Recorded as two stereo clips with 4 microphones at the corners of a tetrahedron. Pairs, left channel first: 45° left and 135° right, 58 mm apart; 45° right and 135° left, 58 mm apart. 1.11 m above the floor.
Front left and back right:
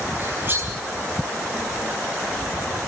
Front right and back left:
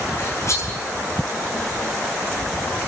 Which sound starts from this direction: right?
Cutlery clinking, at 0.2 s.